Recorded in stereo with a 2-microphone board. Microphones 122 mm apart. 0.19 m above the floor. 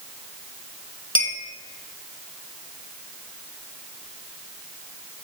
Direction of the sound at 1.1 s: 45° left (ahead or behind).